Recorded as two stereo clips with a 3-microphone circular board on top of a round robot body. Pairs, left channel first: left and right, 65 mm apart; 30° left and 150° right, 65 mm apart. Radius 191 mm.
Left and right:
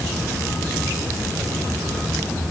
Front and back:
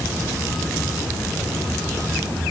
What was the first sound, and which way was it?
Only background noise.